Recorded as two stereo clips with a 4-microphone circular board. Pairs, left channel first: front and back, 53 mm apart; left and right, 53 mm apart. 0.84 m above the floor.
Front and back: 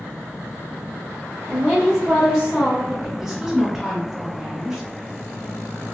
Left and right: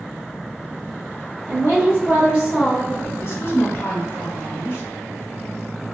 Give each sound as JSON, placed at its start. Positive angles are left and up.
{"t": 1.5, "sound": "a woman speaking", "azimuth_deg": -105, "distance_m": 1.5}
{"t": 3.2, "sound": "a woman speaking", "azimuth_deg": 105, "distance_m": 0.9}